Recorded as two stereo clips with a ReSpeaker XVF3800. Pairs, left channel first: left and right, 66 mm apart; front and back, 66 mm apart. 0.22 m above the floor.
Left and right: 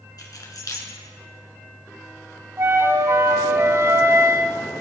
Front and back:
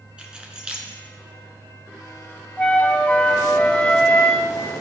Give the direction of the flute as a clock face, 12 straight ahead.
2 o'clock.